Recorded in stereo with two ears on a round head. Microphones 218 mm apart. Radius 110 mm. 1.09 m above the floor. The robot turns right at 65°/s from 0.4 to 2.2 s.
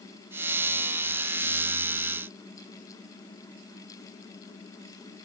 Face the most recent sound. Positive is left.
No sound to turn to.